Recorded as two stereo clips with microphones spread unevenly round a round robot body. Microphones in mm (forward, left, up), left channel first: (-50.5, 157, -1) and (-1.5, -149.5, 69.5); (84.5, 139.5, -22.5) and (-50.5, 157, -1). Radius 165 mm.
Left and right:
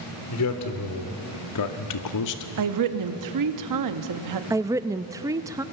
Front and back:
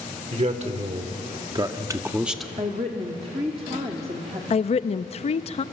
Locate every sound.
0.3 s a man speaking: 135° left, 2.5 m; by 2.5 s 75° left, 1.2 m
2.6 s a woman speaking: 115° right, 1.3 m
4.5 s a woman speaking: 5° left, 0.5 m